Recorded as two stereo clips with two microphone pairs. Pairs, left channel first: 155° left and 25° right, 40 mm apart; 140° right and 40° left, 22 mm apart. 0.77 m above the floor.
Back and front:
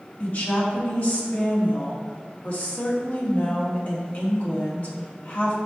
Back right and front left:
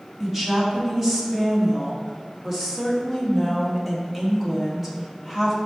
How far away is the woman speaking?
About 1.8 m.